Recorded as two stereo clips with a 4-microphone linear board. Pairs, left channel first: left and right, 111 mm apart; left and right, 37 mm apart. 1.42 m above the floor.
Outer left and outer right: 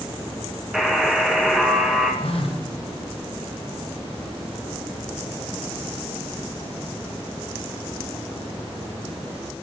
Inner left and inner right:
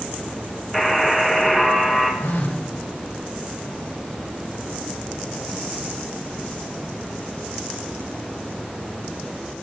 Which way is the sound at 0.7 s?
5° right (ahead or behind).